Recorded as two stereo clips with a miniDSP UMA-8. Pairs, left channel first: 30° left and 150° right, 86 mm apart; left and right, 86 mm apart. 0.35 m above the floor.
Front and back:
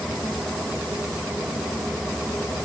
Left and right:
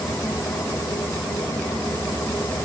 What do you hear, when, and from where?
Only background noise.